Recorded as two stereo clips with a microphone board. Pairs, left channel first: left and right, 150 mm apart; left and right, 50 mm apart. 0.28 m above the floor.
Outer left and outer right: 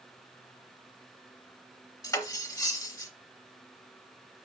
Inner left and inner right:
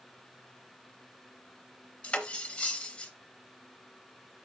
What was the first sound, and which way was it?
Cutlery clinking, 25° left (ahead or behind).